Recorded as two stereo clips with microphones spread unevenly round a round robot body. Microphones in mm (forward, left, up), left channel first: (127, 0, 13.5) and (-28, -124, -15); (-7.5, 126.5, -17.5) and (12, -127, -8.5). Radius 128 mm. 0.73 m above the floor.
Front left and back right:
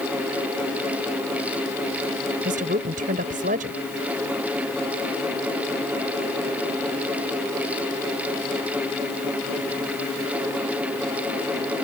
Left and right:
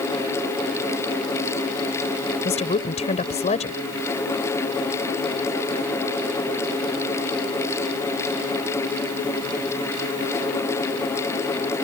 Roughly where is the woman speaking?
Behind.